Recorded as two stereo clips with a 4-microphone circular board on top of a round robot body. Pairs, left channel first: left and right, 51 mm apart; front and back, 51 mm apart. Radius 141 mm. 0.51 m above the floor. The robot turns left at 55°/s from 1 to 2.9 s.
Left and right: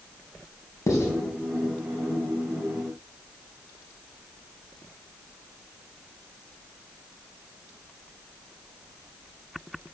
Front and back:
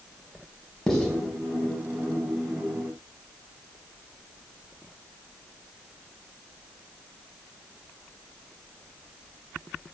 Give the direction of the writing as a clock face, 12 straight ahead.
9 o'clock.